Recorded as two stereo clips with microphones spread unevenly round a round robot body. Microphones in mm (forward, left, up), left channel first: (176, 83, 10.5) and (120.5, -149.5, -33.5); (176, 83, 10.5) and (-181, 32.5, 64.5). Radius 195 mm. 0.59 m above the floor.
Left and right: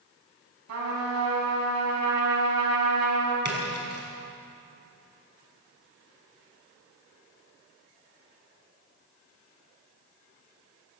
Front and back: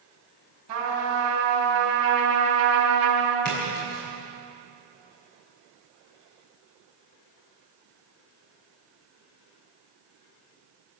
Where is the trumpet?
120° right, 5.5 m.